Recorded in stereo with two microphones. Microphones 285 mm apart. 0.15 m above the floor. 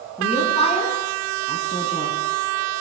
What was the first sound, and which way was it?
A woman speaking, 20° left (ahead or behind).